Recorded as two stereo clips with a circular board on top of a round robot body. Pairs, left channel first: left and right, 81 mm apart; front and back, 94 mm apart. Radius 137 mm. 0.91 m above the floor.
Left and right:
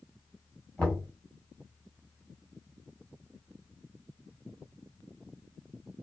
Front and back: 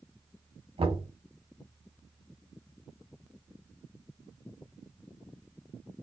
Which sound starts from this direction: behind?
Knocking, at 0.8 s.